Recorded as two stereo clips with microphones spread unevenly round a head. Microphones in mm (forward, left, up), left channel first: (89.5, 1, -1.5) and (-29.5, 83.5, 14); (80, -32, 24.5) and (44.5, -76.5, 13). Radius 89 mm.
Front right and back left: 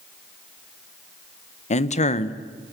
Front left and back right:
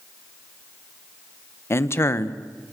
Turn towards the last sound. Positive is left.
turn(degrees=10)